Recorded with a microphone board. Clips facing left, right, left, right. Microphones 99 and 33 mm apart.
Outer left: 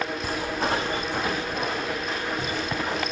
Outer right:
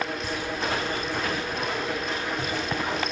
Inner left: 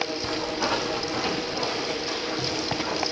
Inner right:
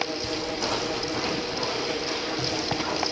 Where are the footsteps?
45° left (ahead or behind), 1.3 m; by 3.0 s 5° right (ahead or behind), 3 m.